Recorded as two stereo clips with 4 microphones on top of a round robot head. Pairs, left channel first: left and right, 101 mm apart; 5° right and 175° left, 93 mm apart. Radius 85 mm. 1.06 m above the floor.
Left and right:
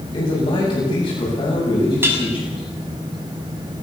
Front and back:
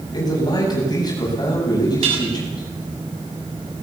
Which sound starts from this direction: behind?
Dishes clattering, at 2.0 s.